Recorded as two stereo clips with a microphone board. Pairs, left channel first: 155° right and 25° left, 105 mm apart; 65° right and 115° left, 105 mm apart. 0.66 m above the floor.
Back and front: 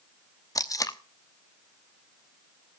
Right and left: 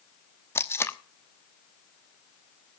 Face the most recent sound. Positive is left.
turn(degrees=-125)